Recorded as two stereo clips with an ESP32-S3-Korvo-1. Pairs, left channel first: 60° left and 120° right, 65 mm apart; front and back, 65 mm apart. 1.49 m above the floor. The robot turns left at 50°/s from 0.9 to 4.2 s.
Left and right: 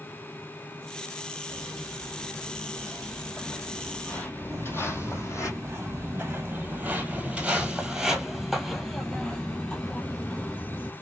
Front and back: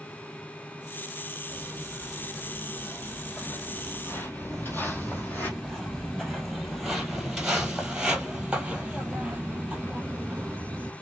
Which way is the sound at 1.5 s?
65° left.